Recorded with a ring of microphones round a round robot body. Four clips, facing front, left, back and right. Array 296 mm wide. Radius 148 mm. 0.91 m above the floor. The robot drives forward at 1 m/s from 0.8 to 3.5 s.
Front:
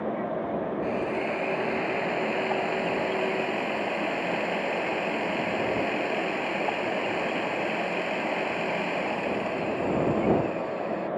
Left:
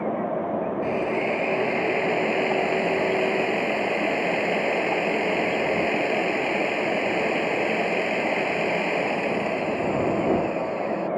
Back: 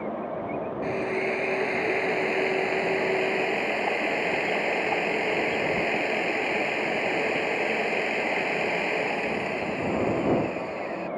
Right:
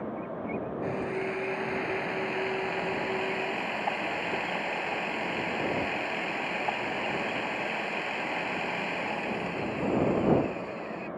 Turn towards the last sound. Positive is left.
turn(degrees=135)